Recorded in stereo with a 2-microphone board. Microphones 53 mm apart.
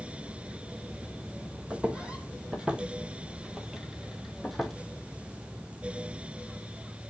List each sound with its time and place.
1.7 s footsteps: 20° right (ahead or behind), 1.5 m; by 4.7 s centre (ahead or behind), 1.4 m